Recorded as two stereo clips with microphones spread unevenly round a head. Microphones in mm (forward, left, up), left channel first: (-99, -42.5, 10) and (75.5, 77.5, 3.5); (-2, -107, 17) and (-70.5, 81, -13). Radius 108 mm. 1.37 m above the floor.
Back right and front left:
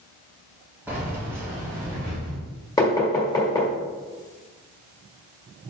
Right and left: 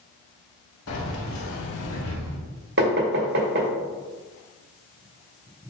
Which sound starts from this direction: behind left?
Knocking, at 2.8 s.